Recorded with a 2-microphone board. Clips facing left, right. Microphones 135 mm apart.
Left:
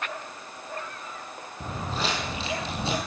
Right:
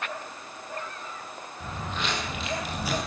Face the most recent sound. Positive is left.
turn(degrees=25)  # may be behind; listen again after turning